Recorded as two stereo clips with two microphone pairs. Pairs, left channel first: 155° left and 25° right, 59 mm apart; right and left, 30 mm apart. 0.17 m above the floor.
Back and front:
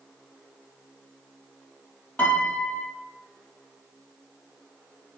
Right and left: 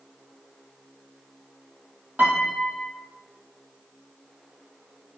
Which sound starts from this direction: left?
A piano, at 2.2 s.